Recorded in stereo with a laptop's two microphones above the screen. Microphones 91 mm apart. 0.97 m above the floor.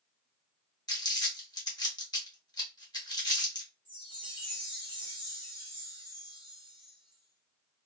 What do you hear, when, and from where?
0.9 s crumpling: 45° left (ahead or behind), 1.4 m
3.9 s a chime: 60° left (ahead or behind), 1.4 m